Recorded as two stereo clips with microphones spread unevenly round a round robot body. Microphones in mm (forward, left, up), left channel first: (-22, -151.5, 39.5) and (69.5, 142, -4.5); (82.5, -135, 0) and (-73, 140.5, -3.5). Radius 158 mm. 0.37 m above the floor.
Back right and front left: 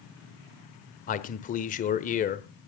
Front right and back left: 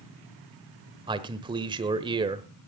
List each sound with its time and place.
1.1 s a man speaking: 170° right, 1.1 m